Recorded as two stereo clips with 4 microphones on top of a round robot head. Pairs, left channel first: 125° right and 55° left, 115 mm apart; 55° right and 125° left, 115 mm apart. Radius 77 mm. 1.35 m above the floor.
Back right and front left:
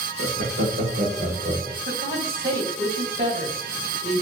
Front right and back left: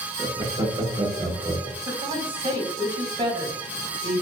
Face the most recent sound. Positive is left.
turn(degrees=70)